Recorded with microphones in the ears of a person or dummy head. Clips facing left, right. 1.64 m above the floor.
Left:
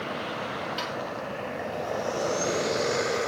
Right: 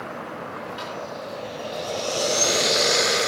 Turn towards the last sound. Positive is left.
turn(degrees=35)  # may be behind; listen again after turning